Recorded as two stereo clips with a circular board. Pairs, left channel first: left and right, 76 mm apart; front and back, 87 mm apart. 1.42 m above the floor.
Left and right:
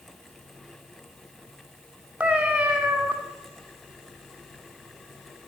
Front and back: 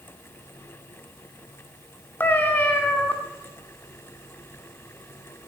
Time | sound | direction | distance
2.2 | a cat meowing | 35° right | 1.1 m